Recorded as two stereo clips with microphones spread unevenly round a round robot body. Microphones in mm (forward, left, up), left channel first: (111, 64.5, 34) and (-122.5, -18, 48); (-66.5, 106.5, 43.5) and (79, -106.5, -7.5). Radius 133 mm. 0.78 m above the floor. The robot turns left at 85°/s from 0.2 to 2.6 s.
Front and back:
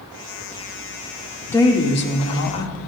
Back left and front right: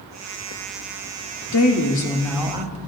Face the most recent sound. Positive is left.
turn(degrees=10)